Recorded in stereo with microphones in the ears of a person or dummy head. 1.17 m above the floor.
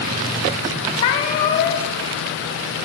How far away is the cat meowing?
About 0.5 m.